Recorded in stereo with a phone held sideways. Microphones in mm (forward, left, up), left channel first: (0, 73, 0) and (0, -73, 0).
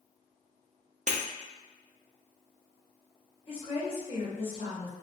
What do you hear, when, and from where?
1.1 s breaking glass: 55° right (ahead or behind), 0.6 m
3.5 s a woman speaking: 35° left (ahead or behind), 1.1 m